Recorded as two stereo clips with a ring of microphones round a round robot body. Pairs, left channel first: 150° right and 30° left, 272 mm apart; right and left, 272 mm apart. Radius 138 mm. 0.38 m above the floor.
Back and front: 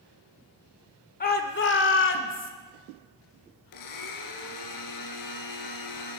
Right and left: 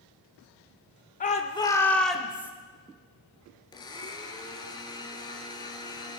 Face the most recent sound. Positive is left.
turn(degrees=-165)